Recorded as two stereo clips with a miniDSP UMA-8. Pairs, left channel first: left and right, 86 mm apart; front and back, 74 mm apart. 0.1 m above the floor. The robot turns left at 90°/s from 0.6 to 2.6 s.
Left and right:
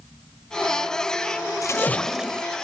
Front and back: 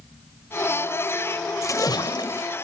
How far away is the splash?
About 0.5 m.